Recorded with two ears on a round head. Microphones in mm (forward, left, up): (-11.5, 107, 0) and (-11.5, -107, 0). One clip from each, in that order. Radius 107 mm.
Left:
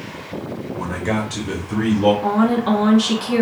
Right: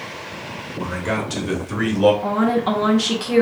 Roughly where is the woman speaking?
Centre.